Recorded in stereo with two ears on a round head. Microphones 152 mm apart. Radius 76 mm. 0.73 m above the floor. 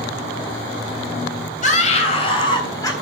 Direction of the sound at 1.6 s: 45° left (ahead or behind).